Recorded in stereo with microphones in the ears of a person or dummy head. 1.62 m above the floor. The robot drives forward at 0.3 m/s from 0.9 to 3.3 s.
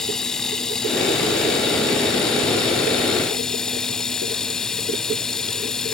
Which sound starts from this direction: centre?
Running water, at 0.0 s.